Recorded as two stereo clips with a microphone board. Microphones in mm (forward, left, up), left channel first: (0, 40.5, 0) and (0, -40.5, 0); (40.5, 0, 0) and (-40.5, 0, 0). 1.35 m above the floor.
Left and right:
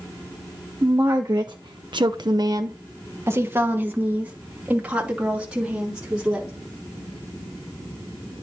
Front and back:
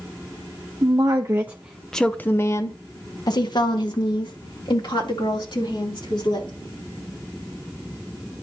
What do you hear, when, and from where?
0.8 s a woman speaking: 140° right, 1.0 m; by 6.5 s 10° right, 3.5 m